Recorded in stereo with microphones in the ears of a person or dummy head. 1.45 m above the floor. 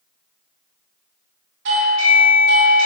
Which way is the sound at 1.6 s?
65° right (ahead or behind).